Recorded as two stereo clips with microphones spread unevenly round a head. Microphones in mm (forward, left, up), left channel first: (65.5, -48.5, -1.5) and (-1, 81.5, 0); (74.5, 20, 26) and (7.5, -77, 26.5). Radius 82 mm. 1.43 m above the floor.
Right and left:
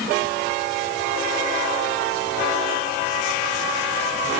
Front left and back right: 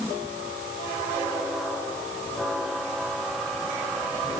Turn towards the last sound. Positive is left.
No sound to turn to.